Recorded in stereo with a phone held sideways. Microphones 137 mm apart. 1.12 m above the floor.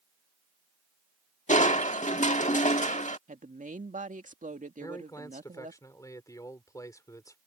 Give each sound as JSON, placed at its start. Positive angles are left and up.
{"t": 1.5, "sound": "crushing", "side_deg": 65}
{"t": 3.3, "sound": "a woman speaking", "side_deg": -70}
{"t": 4.8, "sound": "a man speaking", "side_deg": 25}